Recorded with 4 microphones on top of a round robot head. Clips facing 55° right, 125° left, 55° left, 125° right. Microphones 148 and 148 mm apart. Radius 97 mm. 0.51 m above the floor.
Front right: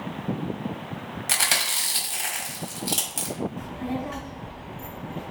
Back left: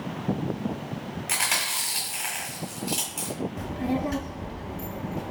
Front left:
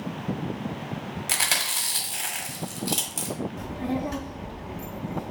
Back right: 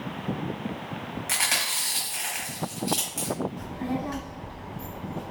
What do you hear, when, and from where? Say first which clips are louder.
1.3 s chewing: front right 1 dB, front left 1 dB; straight ahead, 1.2 m
3.6 s a child speaking: back left 3 dB, front left 2 dB; 110° left, 0.6 m